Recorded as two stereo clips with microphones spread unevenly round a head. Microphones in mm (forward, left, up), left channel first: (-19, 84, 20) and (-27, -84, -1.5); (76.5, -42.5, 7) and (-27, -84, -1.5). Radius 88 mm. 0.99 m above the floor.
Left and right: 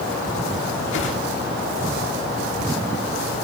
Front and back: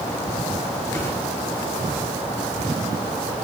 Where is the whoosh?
100° left, 3 m.